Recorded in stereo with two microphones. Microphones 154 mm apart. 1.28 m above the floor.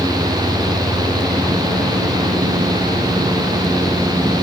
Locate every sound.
Only background noise.